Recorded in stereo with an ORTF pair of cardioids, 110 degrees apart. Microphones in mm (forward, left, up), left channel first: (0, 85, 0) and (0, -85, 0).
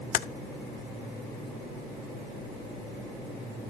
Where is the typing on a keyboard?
55° left, 0.5 m.